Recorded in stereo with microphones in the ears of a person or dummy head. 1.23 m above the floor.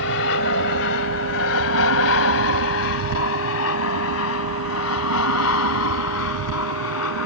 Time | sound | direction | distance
0.0 | an aircraft | 70° left (ahead or behind) | ?